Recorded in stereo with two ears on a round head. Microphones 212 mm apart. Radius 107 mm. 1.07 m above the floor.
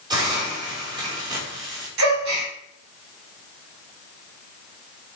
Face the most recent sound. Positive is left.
turn(degrees=-60)  # may be behind; listen again after turning